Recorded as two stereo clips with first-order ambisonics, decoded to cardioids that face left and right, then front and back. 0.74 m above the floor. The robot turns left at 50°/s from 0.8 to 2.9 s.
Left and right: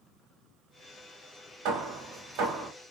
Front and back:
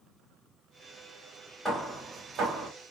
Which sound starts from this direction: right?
Hammering, at 1.6 s.